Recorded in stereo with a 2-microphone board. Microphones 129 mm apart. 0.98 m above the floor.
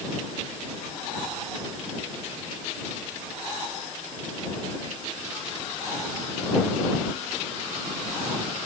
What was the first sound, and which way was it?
Only background noise.